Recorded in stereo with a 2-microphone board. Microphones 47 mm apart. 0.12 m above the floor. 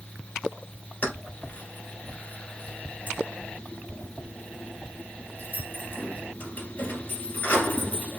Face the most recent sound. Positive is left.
turn(degrees=40)  # may be behind; listen again after turning